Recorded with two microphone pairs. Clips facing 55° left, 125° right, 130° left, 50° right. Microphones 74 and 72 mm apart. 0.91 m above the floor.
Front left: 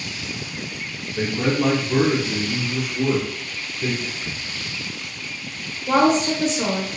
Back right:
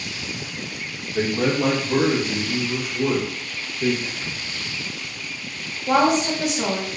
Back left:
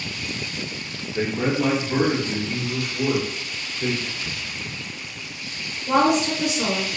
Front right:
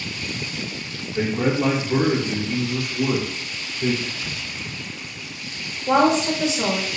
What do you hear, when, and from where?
1.1 s a man speaking: 150° right, 0.9 m; by 3.9 s 170° right, 3.5 m
4.0 s whispering: 90° right, 1.1 m
5.9 s a woman speaking: 50° right, 0.9 m